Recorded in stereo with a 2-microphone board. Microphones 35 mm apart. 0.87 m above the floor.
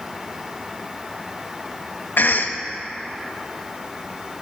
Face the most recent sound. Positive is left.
turn(degrees=65)  # may be behind; listen again after turning